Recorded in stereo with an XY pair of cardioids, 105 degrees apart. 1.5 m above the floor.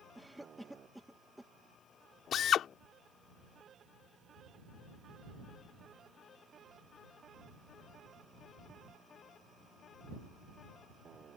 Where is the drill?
65° left.